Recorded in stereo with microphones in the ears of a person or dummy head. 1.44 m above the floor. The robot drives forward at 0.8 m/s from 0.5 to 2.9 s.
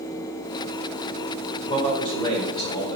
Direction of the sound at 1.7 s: 30° left (ahead or behind).